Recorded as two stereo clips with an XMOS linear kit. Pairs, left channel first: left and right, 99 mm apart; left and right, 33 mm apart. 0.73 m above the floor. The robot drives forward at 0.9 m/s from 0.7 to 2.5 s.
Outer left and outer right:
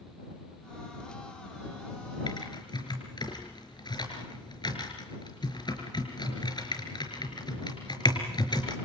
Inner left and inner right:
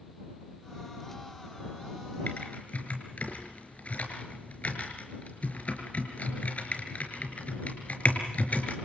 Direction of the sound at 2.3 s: 50° left (ahead or behind).